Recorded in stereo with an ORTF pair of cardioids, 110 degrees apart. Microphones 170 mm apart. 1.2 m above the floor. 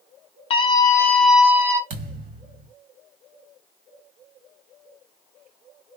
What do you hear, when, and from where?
0.5 s a scream: 35° left, 1.1 m; by 1.8 s 20° right, 1.1 m
1.9 s a thud: 65° right, 1.4 m